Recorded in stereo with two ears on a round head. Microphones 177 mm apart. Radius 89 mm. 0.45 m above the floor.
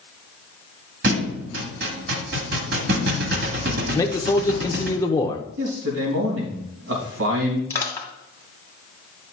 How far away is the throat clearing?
I don't hear throat clearing.